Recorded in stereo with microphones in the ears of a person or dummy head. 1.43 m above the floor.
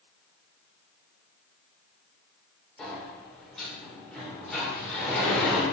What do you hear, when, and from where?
2.8 s a sliding door: 5° left (ahead or behind), 1.1 m